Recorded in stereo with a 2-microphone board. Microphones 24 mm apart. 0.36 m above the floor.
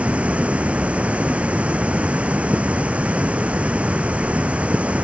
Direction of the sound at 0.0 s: 70° right (ahead or behind).